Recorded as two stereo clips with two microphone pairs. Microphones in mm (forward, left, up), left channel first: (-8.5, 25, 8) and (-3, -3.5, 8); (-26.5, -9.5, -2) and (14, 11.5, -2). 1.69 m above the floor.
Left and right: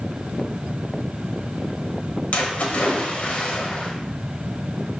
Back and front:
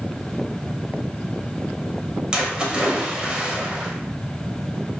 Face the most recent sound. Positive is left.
turn(degrees=95)